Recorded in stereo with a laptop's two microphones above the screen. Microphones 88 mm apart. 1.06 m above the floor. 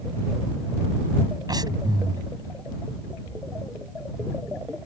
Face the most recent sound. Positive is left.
turn(degrees=-50)  # may be behind; listen again after turning